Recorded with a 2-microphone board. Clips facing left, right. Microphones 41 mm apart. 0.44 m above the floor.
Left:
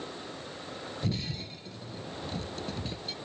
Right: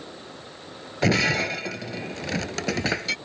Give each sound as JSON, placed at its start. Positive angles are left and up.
{"t": 1.0, "sound": "breaking glass", "side_deg": -85}